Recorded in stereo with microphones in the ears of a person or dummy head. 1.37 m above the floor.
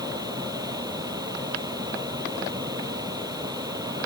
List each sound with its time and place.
0.0 s a fan: 30° right (ahead or behind)